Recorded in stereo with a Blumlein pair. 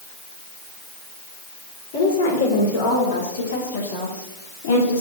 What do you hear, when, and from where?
1.9 s a woman speaking: 55° left, 5 m